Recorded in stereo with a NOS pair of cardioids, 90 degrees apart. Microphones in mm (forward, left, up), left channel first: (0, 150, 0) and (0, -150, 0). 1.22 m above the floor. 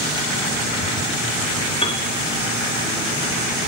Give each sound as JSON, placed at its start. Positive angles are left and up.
{"t": 1.8, "sound": "a piano", "azimuth_deg": 20, "distance_m": 3.0}